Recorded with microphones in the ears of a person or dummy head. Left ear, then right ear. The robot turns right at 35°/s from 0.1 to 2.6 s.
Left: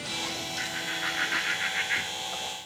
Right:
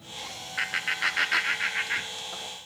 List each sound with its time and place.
0.6 s laughter: 40° right (ahead or behind), 0.8 m; by 2.5 s centre (ahead or behind), 0.8 m